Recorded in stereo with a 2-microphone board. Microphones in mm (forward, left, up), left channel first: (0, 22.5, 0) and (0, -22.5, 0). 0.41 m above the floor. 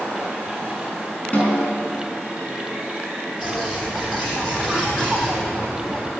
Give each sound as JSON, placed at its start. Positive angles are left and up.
{"t": 1.3, "sound": "a snare drum", "side_deg": 30, "distance_m": 5.0}
{"t": 3.4, "sound": "a bird", "side_deg": 5, "distance_m": 3.5}